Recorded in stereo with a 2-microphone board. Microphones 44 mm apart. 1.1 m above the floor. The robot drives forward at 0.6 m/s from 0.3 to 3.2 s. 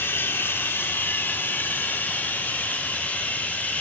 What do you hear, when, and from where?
0.0 s running water: 65° left (ahead or behind), 2.5 m; by 3.8 s 40° left (ahead or behind), 4 m